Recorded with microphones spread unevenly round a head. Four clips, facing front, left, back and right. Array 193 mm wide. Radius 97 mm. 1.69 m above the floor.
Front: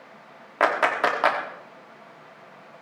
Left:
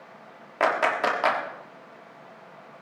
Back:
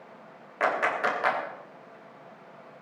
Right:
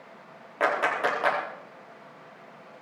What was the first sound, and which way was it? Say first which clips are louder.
A clap: left 2 dB, front 5 dB; 10° left.